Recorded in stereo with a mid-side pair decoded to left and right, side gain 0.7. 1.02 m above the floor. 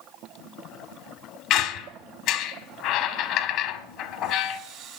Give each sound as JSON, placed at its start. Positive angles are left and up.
{"t": 1.5, "sound": "a squeak", "azimuth_deg": 65, "distance_m": 1.3}